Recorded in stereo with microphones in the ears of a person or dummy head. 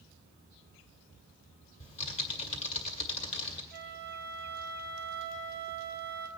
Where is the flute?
15° right (ahead or behind), 1.9 m.